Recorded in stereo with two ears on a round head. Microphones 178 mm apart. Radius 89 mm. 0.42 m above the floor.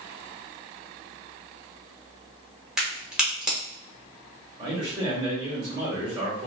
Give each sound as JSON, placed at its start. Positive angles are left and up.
{"t": 2.8, "sound": "a crack", "side_deg": -5, "distance_m": 0.9}
{"t": 4.6, "sound": "a man speaking", "side_deg": -25, "distance_m": 1.3}